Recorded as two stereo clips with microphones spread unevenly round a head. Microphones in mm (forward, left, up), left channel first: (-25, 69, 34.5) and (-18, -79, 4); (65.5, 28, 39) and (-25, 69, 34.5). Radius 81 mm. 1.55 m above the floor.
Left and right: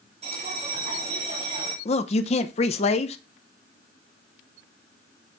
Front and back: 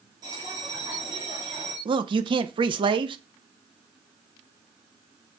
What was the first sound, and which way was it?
A bell, 140° right.